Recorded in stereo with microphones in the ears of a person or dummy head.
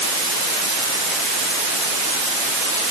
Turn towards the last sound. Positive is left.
No sound to turn to.